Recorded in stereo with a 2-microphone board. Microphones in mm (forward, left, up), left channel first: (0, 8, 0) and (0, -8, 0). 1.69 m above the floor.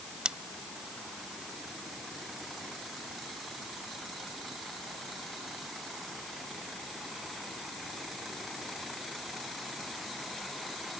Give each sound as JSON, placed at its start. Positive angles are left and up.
{"t": 0.2, "sound": "scissors", "side_deg": -70}